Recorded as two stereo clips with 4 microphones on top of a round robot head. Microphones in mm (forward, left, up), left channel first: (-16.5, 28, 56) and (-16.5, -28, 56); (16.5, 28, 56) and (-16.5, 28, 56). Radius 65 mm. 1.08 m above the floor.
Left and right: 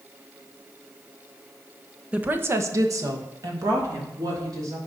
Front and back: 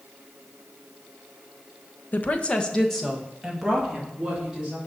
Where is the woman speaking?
20° right, 0.9 m; by 4.8 s 105° right, 3.5 m.